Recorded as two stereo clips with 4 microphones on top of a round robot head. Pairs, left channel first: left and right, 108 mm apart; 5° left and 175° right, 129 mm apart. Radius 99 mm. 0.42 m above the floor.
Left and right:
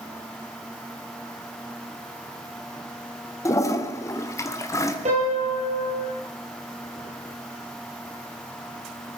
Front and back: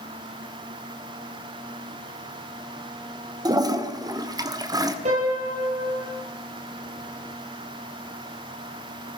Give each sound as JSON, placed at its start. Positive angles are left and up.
{"t": 3.5, "sound": "a toilet flushing", "azimuth_deg": 140, "distance_m": 1.5}
{"t": 5.0, "sound": "a piano", "azimuth_deg": -130, "distance_m": 5.5}